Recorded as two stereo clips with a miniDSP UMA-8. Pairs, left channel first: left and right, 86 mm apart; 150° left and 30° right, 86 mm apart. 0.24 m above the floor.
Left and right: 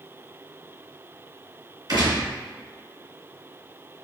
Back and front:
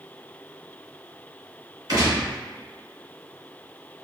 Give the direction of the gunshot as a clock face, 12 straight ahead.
2 o'clock.